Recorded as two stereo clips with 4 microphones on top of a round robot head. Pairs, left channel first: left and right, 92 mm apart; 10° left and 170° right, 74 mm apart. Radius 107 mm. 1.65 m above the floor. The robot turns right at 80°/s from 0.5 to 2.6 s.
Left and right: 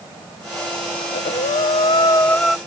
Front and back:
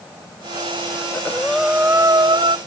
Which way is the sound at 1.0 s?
55° left.